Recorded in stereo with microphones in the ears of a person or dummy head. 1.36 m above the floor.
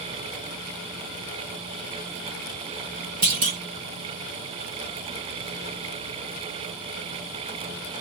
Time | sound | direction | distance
3.2 | a clunk | 45° right (ahead or behind) | 0.8 m